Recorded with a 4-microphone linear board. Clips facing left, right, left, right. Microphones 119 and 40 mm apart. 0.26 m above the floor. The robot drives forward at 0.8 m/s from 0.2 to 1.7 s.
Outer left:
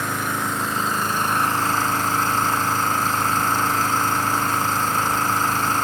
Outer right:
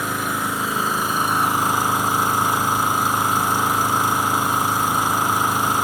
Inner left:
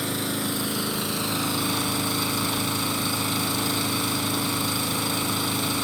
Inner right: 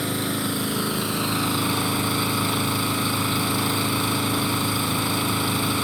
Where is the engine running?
10° right (ahead or behind), 3 m.